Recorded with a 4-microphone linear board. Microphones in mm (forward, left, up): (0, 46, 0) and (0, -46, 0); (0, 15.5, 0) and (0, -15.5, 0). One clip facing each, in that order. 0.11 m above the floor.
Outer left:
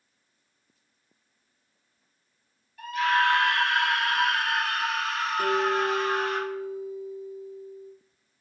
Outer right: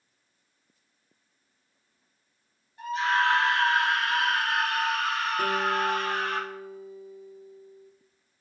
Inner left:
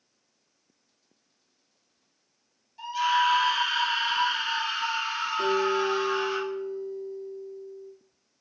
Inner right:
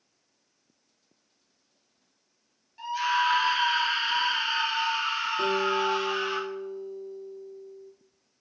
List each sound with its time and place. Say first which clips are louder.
2.8 s a scream: outer left 1 dB, inner left 2 dB; 25° right (ahead or behind), 2 m; by 6.4 s 60° right (ahead or behind), 3 m
5.4 s a guitar: outer left 3 dB, inner left 2 dB; 55° right (ahead or behind), 3 m